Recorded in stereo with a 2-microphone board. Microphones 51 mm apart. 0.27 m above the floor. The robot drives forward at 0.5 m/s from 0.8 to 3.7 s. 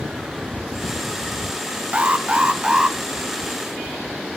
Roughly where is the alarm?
Right.